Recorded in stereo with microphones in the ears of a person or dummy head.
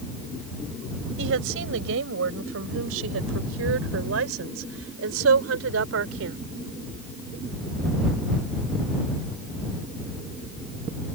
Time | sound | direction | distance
1.2 | a woman speaking | 80° right | ?